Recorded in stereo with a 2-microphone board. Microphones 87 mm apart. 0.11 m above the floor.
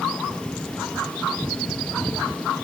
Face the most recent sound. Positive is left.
No sound to turn to.